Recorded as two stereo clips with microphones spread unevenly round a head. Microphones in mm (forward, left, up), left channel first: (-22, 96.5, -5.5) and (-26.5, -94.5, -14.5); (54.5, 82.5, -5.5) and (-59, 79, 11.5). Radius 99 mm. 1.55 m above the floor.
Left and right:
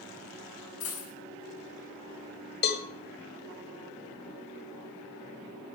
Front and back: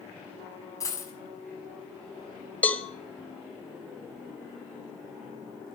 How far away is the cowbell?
About 1.8 m.